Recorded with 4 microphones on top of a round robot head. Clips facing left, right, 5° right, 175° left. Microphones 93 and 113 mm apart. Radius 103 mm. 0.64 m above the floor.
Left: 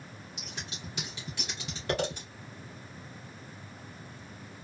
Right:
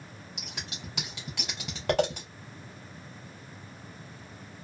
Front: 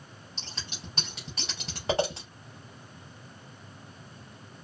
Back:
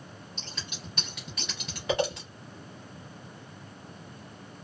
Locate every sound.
0.4 s scissors: 65° right, 0.5 m